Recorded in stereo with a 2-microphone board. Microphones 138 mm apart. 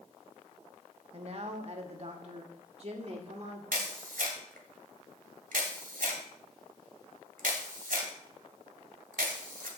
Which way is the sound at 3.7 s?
80° right.